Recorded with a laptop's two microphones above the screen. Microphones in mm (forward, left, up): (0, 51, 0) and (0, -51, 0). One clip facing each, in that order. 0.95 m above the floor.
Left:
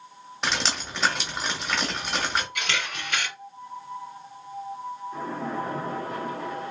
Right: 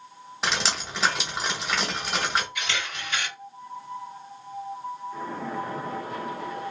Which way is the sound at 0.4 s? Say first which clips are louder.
Even; centre (ahead or behind).